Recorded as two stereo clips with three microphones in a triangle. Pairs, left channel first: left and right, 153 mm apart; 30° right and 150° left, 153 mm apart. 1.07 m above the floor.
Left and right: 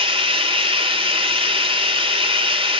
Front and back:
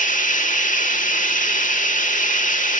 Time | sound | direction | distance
0.0 | running water | 40° right | 1.1 m